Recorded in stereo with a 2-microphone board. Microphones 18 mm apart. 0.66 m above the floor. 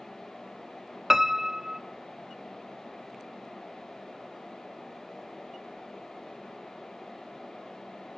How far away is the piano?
About 0.5 m.